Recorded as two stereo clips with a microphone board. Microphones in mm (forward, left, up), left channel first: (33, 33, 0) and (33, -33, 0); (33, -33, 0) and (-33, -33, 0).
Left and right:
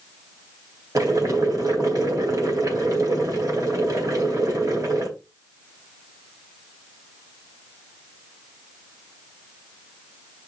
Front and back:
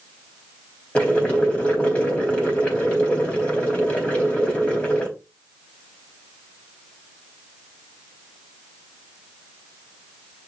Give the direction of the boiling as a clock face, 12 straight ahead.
2 o'clock.